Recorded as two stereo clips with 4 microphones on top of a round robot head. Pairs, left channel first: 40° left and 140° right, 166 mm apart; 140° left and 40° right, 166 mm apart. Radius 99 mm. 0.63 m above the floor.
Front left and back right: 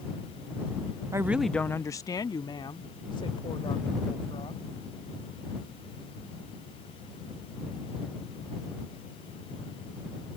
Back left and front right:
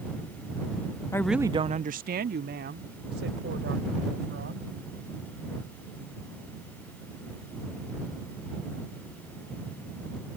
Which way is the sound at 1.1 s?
Straight behind.